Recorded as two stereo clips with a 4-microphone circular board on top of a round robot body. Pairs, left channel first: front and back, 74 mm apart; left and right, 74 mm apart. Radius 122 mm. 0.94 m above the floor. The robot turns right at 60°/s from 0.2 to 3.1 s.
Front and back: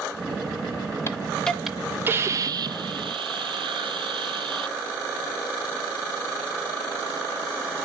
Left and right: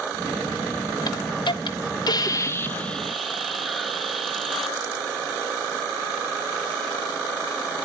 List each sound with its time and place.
1.1 s a hiss: 55° left, 1.1 m; by 4.8 s straight behind, 1.1 m